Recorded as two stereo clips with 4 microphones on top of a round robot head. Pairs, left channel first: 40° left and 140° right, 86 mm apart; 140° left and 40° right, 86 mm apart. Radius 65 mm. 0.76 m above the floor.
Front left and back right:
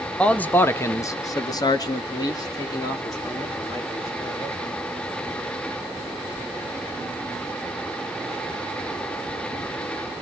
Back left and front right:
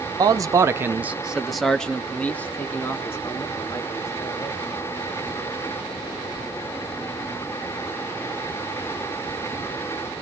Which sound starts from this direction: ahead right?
A man speaking, at 0.2 s.